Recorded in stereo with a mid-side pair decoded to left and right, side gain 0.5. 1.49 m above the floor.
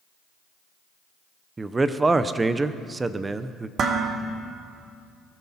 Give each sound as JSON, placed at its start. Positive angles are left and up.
{"t": 1.6, "sound": "a man speaking", "azimuth_deg": -20, "distance_m": 0.9}
{"t": 3.8, "sound": "dishes clattering", "azimuth_deg": -45, "distance_m": 1.9}